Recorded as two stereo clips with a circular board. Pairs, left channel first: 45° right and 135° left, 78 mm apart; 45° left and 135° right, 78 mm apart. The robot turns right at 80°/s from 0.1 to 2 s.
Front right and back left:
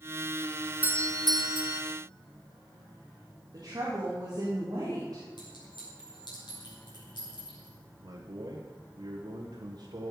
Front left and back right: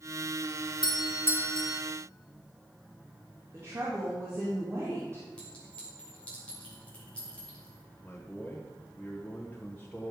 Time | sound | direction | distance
0.8 | a doorbell | 65° left | 0.7 m
3.5 | a woman speaking | 170° left | 2.5 m
5.4 | a clink | 30° right | 5 m
8.0 | a man speaking | 115° left | 1.1 m